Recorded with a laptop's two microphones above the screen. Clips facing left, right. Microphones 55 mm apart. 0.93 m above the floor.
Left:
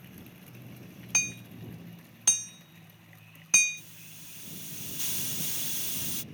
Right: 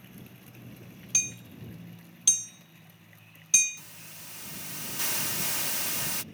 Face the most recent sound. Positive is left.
turn(degrees=-70)  # may be behind; listen again after turning